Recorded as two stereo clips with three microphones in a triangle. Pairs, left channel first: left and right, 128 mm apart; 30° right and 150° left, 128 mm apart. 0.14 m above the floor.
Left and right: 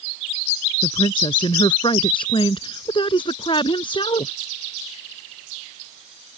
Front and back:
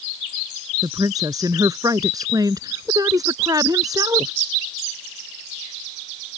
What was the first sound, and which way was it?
A woman speaking, 105° left.